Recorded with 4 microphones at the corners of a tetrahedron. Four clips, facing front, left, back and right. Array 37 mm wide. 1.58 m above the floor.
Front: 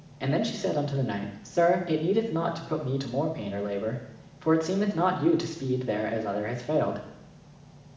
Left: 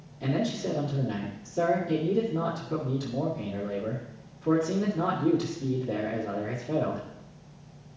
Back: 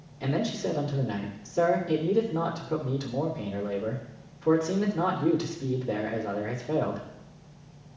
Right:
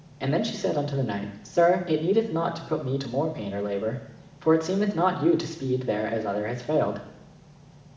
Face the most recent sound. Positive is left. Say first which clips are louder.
# right 3 dB, front 1 dB
turn(degrees=-45)